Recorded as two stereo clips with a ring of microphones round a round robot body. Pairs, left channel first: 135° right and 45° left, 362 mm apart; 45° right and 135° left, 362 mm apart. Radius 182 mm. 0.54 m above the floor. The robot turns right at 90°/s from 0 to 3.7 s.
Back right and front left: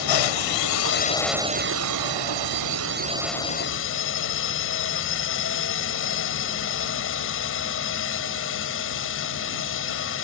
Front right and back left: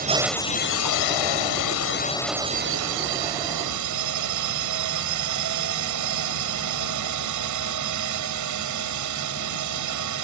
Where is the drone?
160° right; by 10.2 s 170° left.